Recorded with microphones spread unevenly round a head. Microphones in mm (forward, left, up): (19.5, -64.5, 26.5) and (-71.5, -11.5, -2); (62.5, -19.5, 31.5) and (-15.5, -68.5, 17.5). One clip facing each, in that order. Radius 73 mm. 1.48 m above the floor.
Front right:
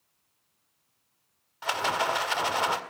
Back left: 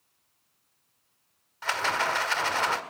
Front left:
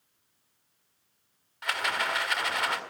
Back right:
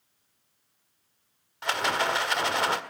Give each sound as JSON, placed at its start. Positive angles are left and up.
{"t": 1.6, "sound": "a rattle", "azimuth_deg": -90, "distance_m": 1.8}